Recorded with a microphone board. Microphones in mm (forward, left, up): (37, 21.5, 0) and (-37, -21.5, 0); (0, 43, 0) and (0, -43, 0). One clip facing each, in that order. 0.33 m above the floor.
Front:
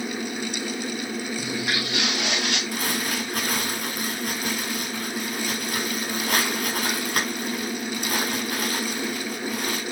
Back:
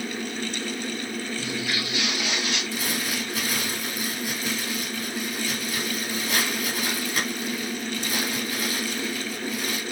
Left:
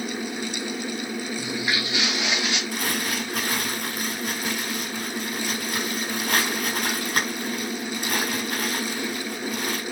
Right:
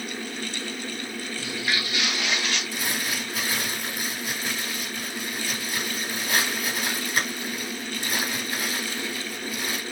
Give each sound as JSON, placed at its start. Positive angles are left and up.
{"t": 1.4, "sound": "footsteps", "azimuth_deg": 25, "distance_m": 6.0}
{"t": 2.7, "sound": "crumpling", "azimuth_deg": 55, "distance_m": 7.5}